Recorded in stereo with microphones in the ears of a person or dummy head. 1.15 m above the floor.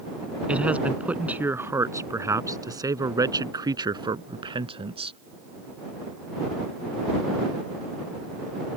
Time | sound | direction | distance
0.5 | a man speaking | 5° right (ahead or behind) | ?